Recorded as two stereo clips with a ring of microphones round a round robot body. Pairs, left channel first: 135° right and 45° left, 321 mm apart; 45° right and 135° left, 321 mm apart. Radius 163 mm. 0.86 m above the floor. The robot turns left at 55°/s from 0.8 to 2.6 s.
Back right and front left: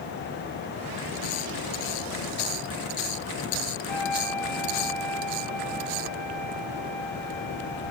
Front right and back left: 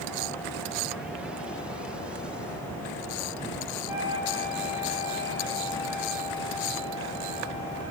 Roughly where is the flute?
Ahead right.